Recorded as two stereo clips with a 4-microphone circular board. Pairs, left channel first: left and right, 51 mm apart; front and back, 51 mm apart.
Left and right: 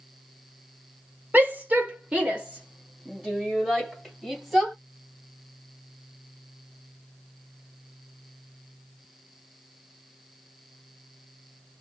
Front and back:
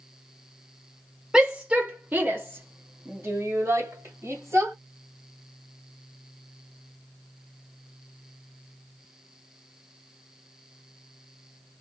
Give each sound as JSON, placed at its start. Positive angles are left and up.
{"t": 1.3, "sound": "a shout", "azimuth_deg": -115, "distance_m": 1.2}